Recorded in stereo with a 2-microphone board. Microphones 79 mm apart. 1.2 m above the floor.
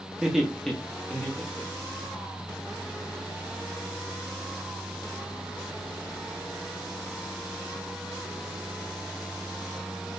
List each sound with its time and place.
0.2 s laughter: 10° right (ahead or behind), 0.5 m; by 2.1 s 20° left (ahead or behind), 1.2 m